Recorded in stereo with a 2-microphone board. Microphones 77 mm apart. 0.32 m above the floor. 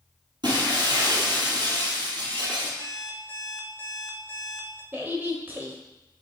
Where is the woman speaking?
30° right (ahead or behind), 1.0 m.